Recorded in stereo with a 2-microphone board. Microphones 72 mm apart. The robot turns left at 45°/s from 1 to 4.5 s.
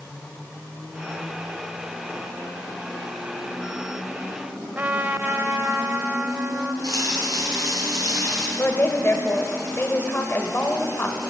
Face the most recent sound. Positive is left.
turn(degrees=30)  # may be behind; listen again after turning